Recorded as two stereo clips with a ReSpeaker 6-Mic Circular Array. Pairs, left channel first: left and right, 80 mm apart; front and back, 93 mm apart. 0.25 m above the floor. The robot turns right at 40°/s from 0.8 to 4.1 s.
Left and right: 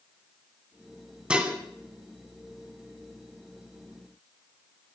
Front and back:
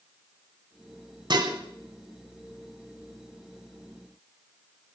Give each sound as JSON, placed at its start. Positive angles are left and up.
{"t": 1.3, "sound": "dishes clattering", "azimuth_deg": -165, "distance_m": 1.4}